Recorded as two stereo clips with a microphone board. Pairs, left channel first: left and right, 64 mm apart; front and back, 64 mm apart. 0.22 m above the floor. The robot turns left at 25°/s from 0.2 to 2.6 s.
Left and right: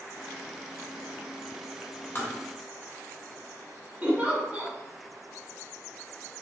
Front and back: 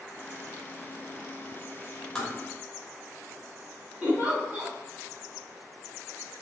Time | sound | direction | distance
2.1 | tapping | 85° left | 1.2 m
4.0 | a giggle | 130° right | 1.4 m